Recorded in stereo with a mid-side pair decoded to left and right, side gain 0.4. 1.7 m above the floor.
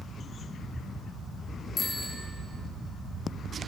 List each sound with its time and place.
1.8 s a bicycle bell: 30° left, 3.5 m